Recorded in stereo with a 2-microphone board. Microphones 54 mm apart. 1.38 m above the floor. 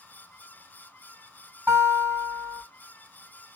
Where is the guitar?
40° right (ahead or behind), 3 m.